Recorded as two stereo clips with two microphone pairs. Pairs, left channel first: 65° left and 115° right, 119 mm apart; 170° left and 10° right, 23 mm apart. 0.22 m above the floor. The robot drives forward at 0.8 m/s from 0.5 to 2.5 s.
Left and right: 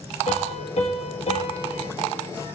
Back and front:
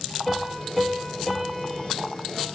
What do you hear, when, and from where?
0.3 s a piano: 90° left, 4 m; by 1.9 s 105° left, 4 m